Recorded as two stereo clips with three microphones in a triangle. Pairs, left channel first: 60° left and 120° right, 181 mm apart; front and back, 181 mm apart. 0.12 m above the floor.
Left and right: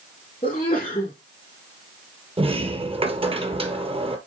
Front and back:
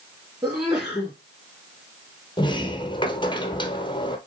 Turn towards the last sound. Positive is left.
turn(degrees=-60)